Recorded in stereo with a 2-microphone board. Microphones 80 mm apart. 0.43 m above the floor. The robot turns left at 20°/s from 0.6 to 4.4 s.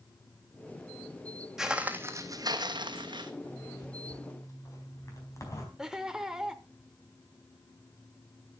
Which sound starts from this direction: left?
A zipper, at 3.4 s.